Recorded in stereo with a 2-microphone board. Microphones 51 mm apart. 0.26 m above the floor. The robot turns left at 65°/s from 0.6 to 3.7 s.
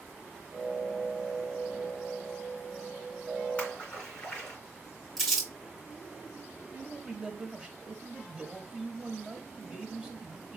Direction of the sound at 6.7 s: 20° right (ahead or behind).